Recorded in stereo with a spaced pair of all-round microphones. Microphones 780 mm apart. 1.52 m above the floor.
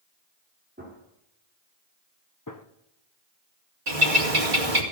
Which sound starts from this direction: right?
A bird, at 3.9 s.